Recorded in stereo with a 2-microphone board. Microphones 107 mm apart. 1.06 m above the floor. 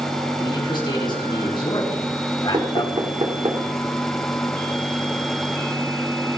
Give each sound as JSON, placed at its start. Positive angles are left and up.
{"t": 0.4, "sound": "a man speaking", "side_deg": 45, "distance_m": 9.0}
{"t": 2.5, "sound": "knocking", "side_deg": -55, "distance_m": 2.0}